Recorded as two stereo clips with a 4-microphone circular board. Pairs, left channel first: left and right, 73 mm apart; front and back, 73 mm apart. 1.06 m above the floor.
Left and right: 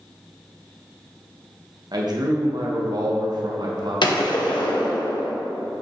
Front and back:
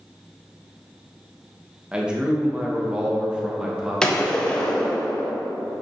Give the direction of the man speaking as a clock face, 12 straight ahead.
3 o'clock.